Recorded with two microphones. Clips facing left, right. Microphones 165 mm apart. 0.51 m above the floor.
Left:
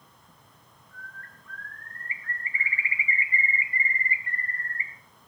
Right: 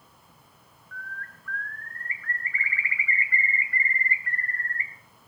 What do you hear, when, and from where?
0.9 s a bird: 20° left (ahead or behind), 1.7 m